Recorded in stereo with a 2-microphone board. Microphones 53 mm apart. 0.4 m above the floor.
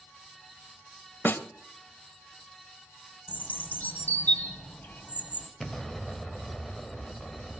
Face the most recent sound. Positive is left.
turn(degrees=5)  # may be behind; listen again after turning